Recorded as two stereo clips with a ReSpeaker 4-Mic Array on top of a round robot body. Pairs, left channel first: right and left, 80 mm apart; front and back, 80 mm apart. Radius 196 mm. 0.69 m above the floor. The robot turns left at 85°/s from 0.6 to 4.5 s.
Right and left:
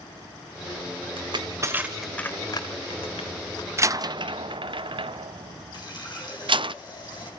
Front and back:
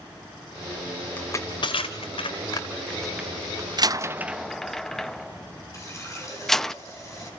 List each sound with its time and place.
1.2 s crushing: 70° left, 0.8 m; by 3.7 s 140° right, 0.8 m
3.8 s a door slam: 145° left, 0.7 m; by 6.7 s 85° left, 0.7 m
5.7 s a running tap: 55° right, 4.5 m